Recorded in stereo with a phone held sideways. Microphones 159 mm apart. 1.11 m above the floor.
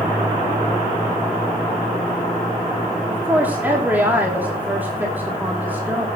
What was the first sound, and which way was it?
A woman speaking, 10° right (ahead or behind).